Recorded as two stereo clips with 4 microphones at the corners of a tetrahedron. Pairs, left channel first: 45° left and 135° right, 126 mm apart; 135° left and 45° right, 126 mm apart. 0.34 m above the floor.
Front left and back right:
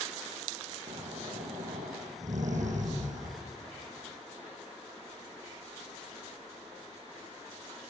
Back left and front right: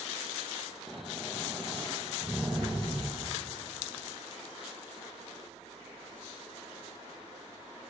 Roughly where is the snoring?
Behind right.